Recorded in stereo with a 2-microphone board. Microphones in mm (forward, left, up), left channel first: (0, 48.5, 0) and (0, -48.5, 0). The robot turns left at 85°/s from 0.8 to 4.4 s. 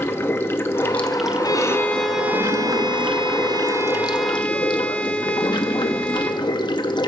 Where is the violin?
55° left, 0.7 m; by 6.5 s 165° left, 0.7 m.